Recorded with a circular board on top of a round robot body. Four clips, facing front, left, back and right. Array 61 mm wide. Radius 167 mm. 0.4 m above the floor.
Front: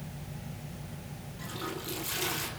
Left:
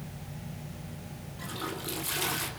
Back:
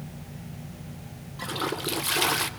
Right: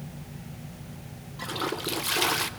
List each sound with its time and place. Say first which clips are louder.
1.4 s a toilet flushing: right 6 dB, back 9 dB; 145° right, 2.5 m